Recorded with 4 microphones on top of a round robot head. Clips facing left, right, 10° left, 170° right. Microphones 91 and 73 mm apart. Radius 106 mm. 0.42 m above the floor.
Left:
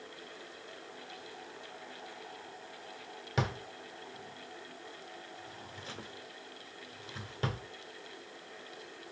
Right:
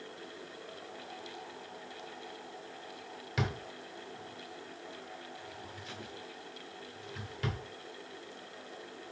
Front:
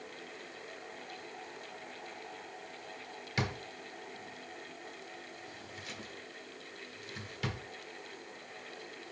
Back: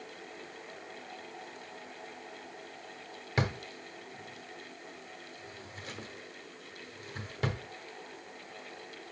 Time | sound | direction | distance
3.4 | a drawer | 145° left | 1.5 m